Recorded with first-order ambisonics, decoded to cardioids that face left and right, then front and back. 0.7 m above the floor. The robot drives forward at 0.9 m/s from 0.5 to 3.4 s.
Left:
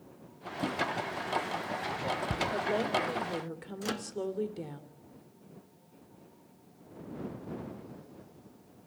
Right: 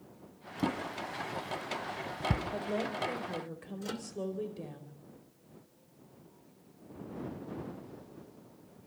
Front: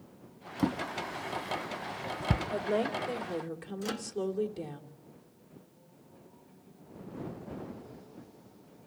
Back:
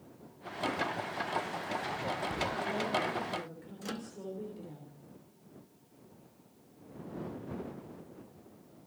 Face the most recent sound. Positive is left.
turn(degrees=70)